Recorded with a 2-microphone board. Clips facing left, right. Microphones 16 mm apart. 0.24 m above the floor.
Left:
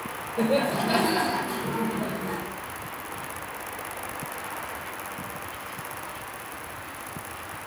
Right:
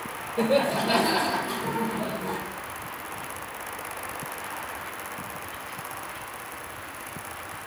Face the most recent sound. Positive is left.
turn(degrees=-40)  # may be behind; listen again after turning